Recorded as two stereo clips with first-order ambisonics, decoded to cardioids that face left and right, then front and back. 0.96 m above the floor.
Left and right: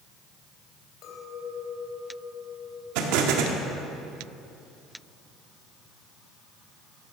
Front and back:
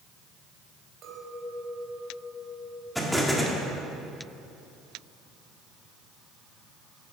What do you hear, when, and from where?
1.0 s a clink: 130° left, 3 m
3.0 s an explosion: 90° right, 1.6 m